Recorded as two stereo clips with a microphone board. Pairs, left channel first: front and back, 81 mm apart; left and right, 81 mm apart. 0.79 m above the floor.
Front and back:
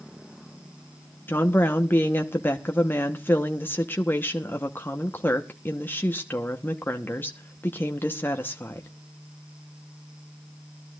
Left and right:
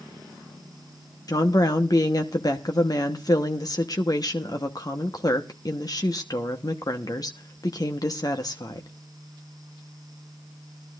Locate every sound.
1.3 s a woman speaking: 60° left, 1.0 m